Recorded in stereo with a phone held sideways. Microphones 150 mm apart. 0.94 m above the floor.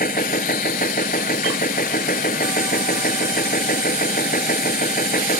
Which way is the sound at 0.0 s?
75° left (ahead or behind).